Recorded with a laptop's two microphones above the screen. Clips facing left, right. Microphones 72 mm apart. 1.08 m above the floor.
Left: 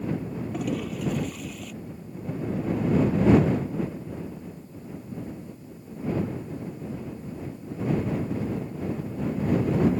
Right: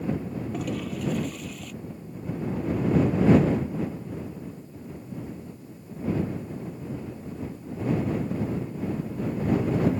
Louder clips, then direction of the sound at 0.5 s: Left 3 dB; centre (ahead or behind).